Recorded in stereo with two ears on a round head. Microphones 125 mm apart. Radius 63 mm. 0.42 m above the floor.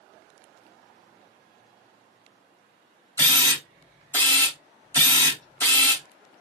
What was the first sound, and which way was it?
A camera shutter, 20° left (ahead or behind).